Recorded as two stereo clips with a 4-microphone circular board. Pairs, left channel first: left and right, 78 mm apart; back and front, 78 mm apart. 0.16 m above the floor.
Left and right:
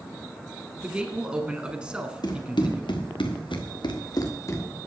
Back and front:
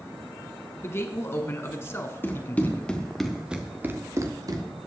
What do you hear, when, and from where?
0.8 s a man speaking: 160° right, 1.4 m
2.2 s running footsteps: 120° left, 3 m; by 4.6 s 35° left, 2.5 m